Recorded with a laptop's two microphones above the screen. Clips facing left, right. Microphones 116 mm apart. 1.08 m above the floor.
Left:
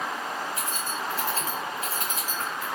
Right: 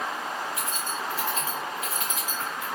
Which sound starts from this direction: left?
Keys jangling, at 0.6 s.